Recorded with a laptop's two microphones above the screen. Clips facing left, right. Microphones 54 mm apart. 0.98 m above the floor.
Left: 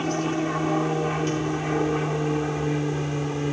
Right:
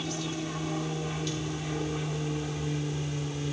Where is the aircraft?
45° left (ahead or behind); by 3.5 s 40° left (ahead or behind).